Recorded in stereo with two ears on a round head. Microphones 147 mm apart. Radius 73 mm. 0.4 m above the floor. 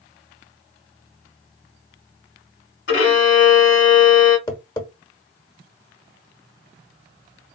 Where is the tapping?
25° left (ahead or behind), 0.9 m.